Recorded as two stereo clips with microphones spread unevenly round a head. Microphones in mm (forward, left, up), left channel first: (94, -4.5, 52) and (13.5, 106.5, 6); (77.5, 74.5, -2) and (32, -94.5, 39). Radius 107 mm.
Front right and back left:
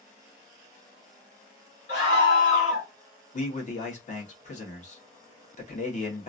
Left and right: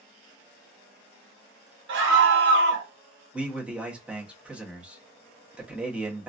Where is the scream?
85° right, 1.2 m.